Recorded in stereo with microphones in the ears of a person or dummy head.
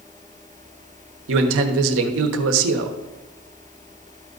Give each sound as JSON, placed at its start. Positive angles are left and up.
{"t": 1.3, "sound": "a man speaking", "side_deg": -80, "distance_m": 1.1}